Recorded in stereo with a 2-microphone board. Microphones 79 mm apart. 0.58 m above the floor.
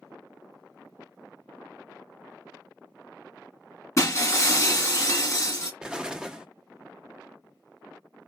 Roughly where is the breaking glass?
Left.